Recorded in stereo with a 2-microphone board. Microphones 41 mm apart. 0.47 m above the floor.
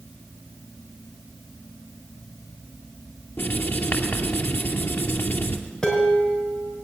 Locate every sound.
3.4 s writing: 60° left (ahead or behind), 2.5 m
5.8 s dishes clattering: 15° left (ahead or behind), 5 m